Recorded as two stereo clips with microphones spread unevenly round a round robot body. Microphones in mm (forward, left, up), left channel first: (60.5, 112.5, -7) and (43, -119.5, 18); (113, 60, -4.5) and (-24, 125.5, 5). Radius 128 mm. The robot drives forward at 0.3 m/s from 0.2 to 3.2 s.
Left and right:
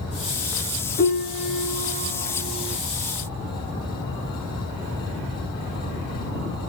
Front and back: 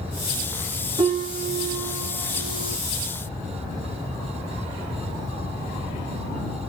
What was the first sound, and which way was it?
A piano, 100° left.